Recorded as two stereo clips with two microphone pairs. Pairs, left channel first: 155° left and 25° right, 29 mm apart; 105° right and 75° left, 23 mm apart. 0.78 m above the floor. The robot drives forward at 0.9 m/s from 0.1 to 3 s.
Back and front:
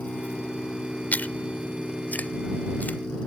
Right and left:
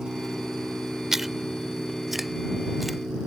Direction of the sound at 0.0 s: 135° left.